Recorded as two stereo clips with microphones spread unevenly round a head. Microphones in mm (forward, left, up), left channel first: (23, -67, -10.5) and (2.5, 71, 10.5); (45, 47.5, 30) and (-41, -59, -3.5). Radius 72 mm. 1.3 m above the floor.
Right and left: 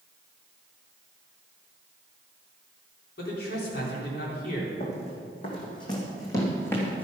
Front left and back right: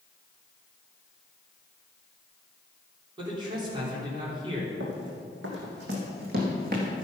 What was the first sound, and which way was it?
A man speaking, 70° right.